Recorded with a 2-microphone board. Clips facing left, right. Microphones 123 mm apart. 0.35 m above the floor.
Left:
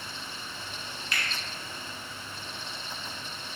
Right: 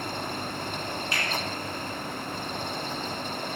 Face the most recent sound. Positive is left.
turn(degrees=-25)  # may be behind; listen again after turning